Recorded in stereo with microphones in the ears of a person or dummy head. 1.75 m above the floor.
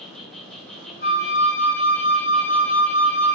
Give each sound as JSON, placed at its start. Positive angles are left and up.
{"t": 0.0, "sound": "an insect", "side_deg": 5, "distance_m": 0.8}
{"t": 1.0, "sound": "a flute", "side_deg": 60, "distance_m": 2.5}